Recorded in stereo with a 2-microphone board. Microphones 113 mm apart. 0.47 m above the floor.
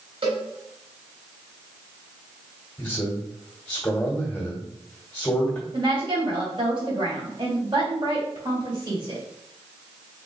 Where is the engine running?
No engine running in this recording.